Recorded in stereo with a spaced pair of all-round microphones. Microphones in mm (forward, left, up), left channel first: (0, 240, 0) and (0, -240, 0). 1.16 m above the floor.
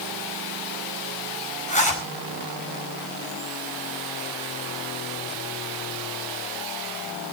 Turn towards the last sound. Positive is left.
turn(degrees=15)  # may be behind; listen again after turning